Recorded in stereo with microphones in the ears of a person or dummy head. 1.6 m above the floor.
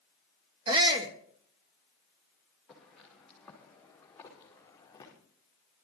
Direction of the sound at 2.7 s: Centre (ahead or behind).